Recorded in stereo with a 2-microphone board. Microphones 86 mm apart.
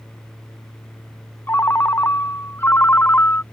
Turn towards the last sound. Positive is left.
turn(degrees=25)  # may be behind; listen again after turning